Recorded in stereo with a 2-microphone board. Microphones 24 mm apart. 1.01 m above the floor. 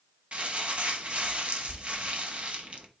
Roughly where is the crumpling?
Right.